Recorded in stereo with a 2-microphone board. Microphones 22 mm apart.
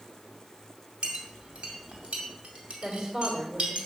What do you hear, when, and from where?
1.0 s a clink: 65° right (ahead or behind), 2 m
2.8 s a woman speaking: 60° right (ahead or behind), 1.9 m